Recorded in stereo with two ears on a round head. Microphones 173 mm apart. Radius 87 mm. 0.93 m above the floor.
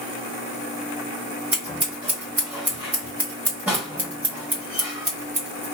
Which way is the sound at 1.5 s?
10° right (ahead or behind).